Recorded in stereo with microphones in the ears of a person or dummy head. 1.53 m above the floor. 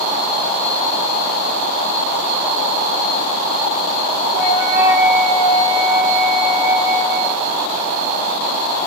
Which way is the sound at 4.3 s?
45° right (ahead or behind).